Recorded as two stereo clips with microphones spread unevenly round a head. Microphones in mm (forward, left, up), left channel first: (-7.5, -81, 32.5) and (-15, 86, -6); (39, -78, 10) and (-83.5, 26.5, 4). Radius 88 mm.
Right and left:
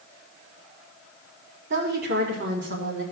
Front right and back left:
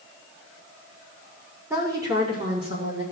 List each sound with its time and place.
1.7 s a woman speaking: 65° left, 3.5 m; by 3.0 s 85° left, 4 m